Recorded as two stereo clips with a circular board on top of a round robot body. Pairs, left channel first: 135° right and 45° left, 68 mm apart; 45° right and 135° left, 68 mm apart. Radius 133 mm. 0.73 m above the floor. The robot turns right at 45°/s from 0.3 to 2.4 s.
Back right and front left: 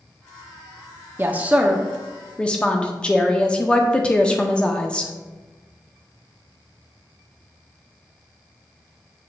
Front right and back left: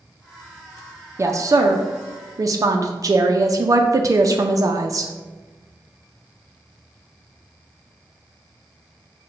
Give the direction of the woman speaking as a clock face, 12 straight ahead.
9 o'clock.